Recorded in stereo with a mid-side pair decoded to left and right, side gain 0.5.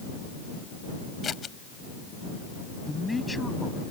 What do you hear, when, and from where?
1.2 s scissors: 40° left
2.9 s a man speaking: 10° left